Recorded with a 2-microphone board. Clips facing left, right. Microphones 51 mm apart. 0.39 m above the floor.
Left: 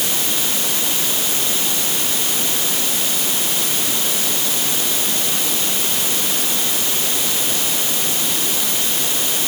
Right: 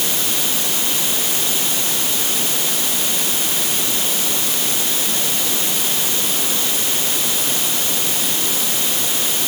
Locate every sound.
Only background noise.